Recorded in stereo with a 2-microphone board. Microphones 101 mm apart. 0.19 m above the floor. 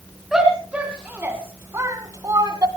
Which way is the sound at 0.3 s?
5° right (ahead or behind).